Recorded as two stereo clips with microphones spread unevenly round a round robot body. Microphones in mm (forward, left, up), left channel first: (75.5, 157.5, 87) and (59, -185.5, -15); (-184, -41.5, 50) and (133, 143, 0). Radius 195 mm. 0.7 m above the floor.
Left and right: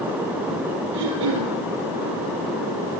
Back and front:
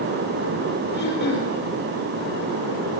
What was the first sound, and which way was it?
Throat clearing, 85° right.